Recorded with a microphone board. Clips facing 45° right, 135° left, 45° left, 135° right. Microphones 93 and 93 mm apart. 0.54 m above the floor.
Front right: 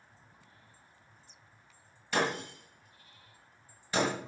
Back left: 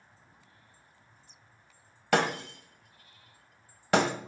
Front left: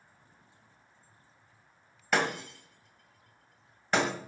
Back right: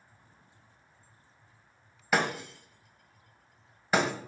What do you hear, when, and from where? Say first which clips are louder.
2.1 s breaking glass: back left 4 dB, back right 1 dB; 140° left, 1.6 m